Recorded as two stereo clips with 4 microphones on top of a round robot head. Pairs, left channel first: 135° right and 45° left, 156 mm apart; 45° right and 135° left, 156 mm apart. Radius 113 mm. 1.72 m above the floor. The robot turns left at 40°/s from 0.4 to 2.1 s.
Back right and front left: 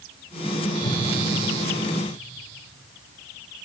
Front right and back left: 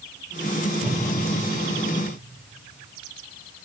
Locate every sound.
0.8 s a whoosh: 155° right, 1.2 m; by 1.0 s 165° right, 1.2 m